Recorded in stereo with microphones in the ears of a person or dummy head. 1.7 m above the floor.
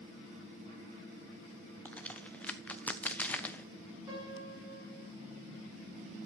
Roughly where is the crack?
Centre.